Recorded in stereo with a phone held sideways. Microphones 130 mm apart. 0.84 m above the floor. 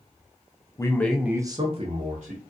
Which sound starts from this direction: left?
A man speaking, at 0.8 s.